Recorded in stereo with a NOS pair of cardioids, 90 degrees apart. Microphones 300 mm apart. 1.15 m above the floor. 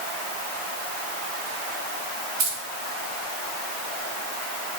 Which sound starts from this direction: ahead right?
Keys jangling, at 2.4 s.